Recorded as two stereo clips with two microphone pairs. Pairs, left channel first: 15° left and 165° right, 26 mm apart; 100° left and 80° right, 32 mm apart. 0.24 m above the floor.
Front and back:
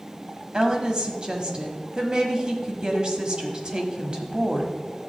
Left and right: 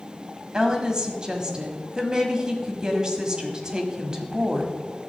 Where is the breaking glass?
I don't hear breaking glass.